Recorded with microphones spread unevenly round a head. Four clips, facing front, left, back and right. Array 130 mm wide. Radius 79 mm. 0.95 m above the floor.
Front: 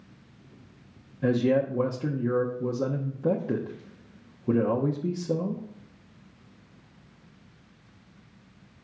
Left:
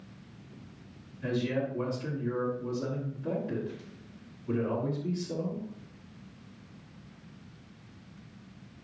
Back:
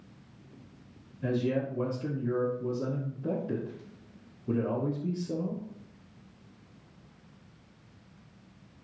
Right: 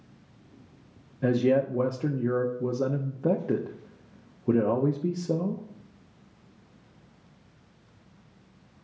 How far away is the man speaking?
About 1.0 m.